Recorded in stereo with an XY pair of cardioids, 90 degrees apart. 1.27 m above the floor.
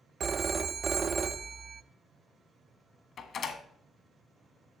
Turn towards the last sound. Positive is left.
turn(degrees=65)